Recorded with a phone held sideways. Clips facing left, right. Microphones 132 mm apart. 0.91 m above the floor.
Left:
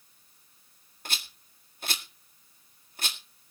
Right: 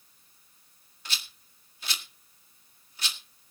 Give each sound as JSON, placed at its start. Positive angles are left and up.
{"t": 1.1, "sound": "a rattle", "side_deg": 55, "distance_m": 1.8}